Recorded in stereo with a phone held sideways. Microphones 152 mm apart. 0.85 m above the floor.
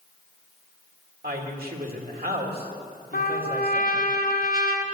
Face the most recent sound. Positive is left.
turn(degrees=85)